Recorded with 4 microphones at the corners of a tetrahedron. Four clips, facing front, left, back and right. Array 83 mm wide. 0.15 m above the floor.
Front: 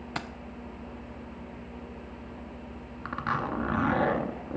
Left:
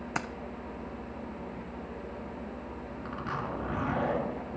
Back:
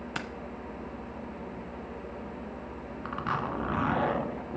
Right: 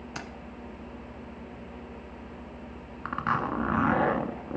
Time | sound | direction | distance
0.1 | keys jangling | 75° left | 0.9 m
3.0 | a zipper | 80° right | 1.7 m